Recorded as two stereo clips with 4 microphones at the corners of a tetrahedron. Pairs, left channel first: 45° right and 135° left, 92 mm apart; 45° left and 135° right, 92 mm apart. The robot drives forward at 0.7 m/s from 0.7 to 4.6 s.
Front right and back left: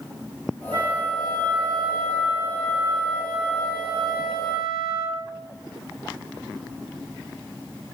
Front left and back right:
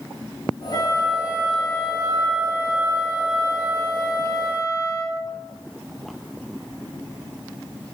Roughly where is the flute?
Left.